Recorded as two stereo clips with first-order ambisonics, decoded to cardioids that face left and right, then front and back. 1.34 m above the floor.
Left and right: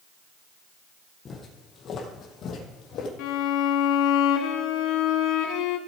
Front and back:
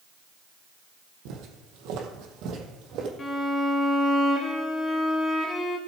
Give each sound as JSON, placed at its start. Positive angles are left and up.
{"t": 1.2, "sound": "footsteps", "azimuth_deg": 160, "distance_m": 2.5}
{"t": 3.2, "sound": "a violin", "azimuth_deg": 70, "distance_m": 1.6}